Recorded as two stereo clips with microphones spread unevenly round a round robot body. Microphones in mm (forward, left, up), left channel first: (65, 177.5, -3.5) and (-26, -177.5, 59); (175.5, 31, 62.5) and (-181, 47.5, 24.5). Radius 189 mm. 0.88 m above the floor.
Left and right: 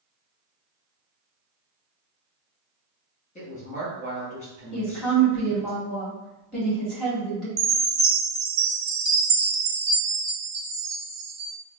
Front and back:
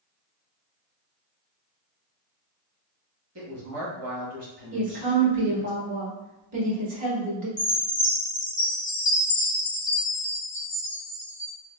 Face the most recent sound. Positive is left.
turn(degrees=-100)